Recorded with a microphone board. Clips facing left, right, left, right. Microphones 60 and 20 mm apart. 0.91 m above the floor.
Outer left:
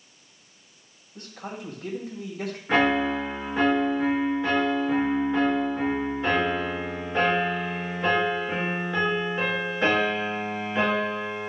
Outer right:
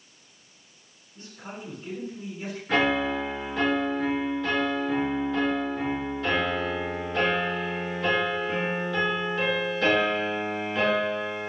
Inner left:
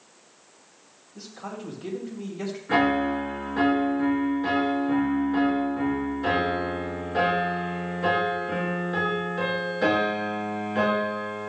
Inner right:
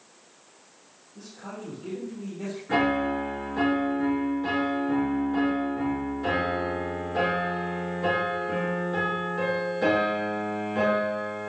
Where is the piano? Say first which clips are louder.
Outer left 2 dB, inner left 2 dB; 25° left (ahead or behind), 4.5 m.